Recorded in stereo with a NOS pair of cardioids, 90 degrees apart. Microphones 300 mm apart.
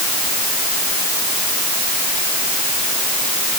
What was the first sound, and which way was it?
Only background noise.